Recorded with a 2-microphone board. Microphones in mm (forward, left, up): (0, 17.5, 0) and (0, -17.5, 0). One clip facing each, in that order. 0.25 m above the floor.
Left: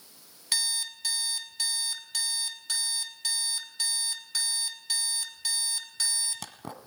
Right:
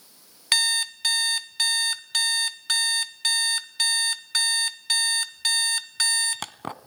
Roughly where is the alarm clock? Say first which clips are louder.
Right 8 dB; right.